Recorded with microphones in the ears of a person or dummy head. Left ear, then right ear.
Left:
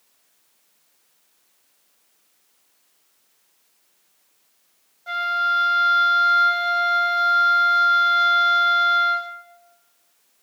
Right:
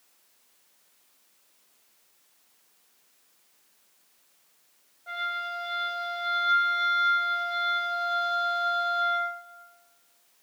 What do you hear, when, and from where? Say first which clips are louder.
5.1 s a flute: left 10 dB; 25° left (ahead or behind), 0.8 m